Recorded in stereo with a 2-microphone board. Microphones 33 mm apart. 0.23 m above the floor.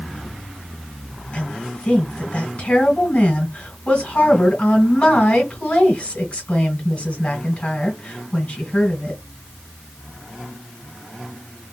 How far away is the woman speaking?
About 1.8 m.